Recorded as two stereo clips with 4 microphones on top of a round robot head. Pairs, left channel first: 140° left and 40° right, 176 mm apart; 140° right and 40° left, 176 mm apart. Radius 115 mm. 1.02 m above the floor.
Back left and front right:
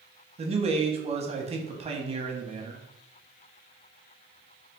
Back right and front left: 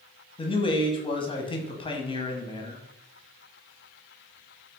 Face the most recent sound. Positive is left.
turn(degrees=-85)